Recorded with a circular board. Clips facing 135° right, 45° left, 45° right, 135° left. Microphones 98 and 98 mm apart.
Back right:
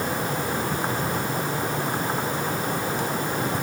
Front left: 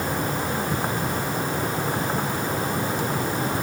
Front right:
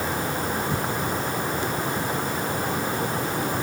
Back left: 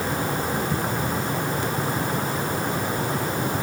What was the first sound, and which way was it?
Only background noise.